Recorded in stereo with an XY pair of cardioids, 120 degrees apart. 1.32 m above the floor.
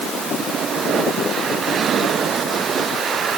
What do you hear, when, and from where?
Only background noise.